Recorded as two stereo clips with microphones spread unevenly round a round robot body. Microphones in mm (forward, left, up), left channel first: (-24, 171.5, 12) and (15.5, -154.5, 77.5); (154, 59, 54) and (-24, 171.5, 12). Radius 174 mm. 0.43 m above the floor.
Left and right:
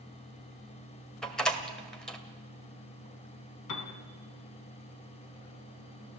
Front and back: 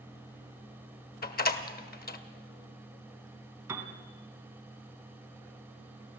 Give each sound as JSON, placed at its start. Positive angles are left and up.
{"t": 1.2, "sound": "a door slam", "azimuth_deg": 15, "distance_m": 1.7}
{"t": 3.7, "sound": "a piano", "azimuth_deg": 70, "distance_m": 3.5}